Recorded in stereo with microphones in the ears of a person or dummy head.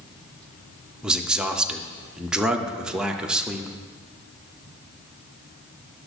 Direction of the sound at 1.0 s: 5° right (ahead or behind).